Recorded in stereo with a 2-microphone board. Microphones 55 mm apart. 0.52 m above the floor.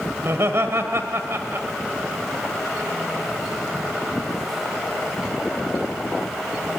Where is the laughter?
55° right (ahead or behind), 1.8 m.